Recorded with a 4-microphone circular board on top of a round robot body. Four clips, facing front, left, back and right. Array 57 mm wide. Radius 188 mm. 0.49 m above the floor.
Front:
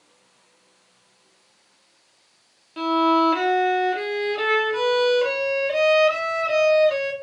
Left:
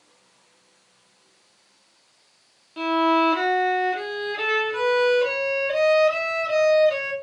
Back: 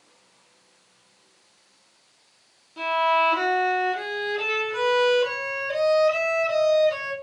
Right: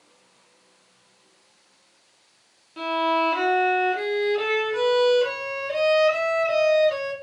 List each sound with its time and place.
2.8 s a violin: 20° left, 0.9 m